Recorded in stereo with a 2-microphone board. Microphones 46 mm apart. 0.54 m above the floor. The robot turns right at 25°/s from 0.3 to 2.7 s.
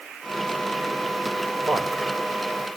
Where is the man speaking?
70° right (ahead or behind), 1.9 m; by 2.0 s 65° right (ahead or behind), 1.9 m.